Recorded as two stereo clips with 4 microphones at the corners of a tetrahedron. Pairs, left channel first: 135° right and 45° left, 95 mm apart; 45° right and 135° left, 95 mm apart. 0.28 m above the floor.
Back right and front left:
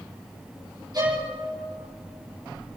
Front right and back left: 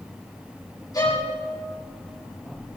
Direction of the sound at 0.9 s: Straight ahead.